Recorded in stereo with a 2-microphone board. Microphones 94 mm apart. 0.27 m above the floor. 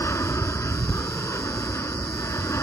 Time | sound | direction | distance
0.0 | an aircraft | 30° left (ahead or behind) | ?